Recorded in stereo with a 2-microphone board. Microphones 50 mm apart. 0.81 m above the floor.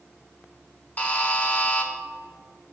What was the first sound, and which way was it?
A buzzer, 30° left (ahead or behind).